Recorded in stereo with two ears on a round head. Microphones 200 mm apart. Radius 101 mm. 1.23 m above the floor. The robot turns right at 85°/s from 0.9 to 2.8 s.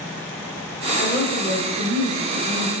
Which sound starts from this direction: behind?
A woman speaking, at 1.0 s.